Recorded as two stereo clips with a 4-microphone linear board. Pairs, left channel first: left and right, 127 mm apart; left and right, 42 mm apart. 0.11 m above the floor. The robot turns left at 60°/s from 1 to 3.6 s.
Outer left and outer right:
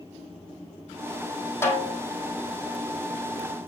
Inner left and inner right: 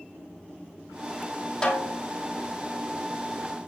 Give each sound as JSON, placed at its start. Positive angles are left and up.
{"t": 1.6, "sound": "a snare drum", "side_deg": 20, "distance_m": 4.0}